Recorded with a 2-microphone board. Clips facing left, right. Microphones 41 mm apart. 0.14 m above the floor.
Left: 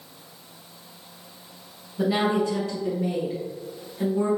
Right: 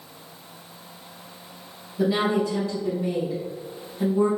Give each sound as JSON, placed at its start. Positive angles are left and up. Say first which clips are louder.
{"t": 2.0, "sound": "a woman speaking", "louder": "even", "side_deg": 30, "distance_m": 1.3}